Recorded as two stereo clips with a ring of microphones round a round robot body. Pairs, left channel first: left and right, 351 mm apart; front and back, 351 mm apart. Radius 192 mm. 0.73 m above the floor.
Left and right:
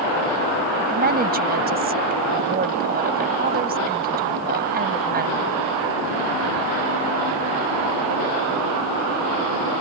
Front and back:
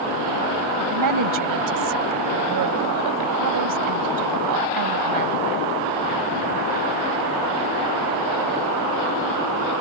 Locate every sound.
0.8 s a woman speaking: 150° right